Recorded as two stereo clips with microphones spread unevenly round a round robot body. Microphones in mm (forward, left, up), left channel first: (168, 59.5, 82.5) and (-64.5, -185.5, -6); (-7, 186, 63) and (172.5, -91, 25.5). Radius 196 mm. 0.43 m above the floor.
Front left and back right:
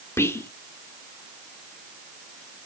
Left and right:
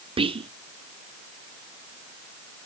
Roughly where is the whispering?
Ahead right.